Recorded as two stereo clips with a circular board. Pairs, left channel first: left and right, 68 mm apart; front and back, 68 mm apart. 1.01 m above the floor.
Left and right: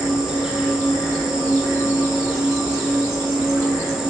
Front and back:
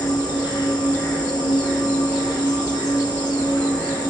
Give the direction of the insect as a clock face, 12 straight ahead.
12 o'clock.